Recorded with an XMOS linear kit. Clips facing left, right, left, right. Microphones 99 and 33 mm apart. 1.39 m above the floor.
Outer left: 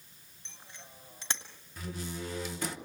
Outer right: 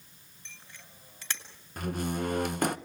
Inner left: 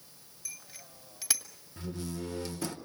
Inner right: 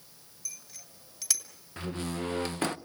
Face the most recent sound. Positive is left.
turn(degrees=-55)  # may be behind; listen again after turning